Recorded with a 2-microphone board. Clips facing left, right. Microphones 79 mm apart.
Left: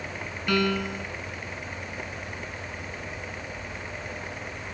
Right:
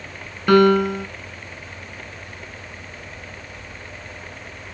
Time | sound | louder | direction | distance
0.5 | a piano | right 12 dB | 50° right (ahead or behind) | ?